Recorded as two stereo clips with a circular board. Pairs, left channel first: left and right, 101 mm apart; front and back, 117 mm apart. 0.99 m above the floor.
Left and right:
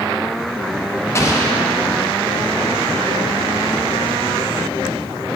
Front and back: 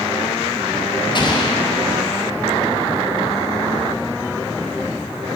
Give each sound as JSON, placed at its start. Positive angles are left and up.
{"t": 1.1, "sound": "an explosion", "azimuth_deg": 35, "distance_m": 0.8}